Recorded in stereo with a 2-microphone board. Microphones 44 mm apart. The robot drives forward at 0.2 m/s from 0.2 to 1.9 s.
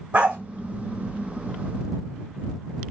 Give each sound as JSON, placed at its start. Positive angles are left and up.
{"t": 0.1, "sound": "a dog barking", "side_deg": -25, "distance_m": 2.5}